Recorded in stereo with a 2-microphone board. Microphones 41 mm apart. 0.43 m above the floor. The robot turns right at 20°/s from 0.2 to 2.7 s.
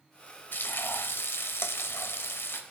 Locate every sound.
0.5 s frying: 60° left, 0.8 m; by 2.6 s 105° left, 0.8 m